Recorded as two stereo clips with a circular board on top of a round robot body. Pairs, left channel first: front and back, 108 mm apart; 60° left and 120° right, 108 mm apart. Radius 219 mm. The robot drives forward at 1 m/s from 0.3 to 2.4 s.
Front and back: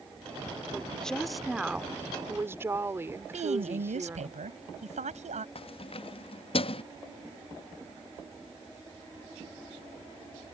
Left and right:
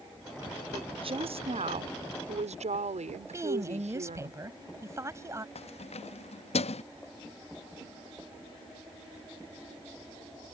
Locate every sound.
0.7 s a woman speaking: 80° right; by 4.3 s 110° right
3.3 s a woman speaking: 175° left
5.5 s keys jangling: 35° left